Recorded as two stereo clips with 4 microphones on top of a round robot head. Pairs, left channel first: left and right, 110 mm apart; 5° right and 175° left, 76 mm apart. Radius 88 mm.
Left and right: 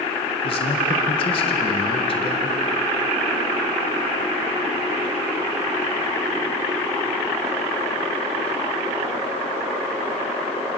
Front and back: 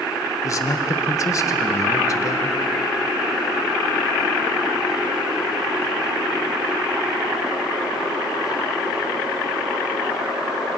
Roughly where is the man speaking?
Ahead left.